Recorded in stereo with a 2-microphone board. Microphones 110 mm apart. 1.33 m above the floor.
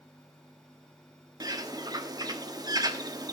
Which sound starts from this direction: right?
A bird, at 1.4 s.